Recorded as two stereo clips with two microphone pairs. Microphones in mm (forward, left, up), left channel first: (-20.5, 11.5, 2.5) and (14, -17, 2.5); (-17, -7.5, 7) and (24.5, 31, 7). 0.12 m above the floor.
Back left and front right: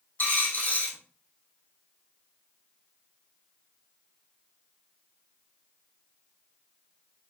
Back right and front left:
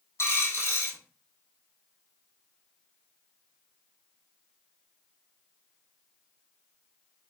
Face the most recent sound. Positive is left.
turn(degrees=-165)